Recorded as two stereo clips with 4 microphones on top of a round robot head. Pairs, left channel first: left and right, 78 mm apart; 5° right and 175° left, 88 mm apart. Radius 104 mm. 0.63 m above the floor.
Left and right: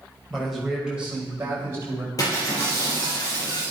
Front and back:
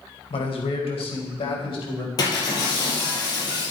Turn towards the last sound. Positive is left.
turn(degrees=40)